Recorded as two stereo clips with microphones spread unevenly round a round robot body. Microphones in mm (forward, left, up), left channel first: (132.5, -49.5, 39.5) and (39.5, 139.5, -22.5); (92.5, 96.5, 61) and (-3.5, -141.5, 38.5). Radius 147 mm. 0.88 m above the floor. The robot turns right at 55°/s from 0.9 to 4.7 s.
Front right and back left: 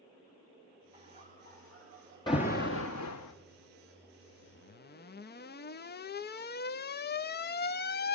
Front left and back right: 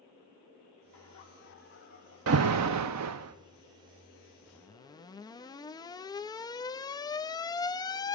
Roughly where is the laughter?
Left.